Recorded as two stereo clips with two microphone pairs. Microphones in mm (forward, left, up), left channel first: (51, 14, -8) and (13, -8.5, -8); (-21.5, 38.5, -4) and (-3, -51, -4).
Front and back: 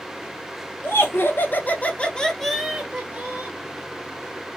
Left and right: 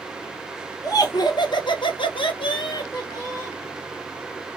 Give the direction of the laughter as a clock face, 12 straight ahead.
10 o'clock.